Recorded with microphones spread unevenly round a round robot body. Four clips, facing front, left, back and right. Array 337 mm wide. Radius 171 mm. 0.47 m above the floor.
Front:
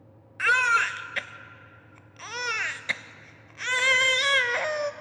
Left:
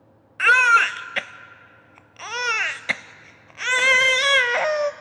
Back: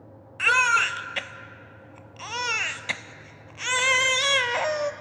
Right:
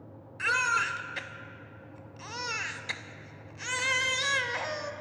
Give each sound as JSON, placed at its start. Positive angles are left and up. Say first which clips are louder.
{"t": 0.4, "sound": "a baby crying", "louder": "left 12 dB, back 1 dB", "azimuth_deg": 95, "distance_m": 0.7}